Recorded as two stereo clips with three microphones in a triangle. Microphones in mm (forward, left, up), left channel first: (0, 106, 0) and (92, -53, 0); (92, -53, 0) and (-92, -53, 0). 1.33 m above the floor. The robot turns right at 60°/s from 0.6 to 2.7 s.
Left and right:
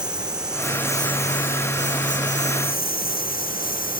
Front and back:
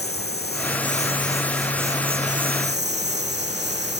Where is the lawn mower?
25° left; by 4.0 s 160° left.